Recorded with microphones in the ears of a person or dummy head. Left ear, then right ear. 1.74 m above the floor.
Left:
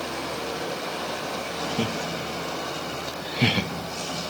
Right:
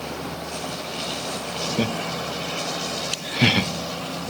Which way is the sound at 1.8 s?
10° right (ahead or behind).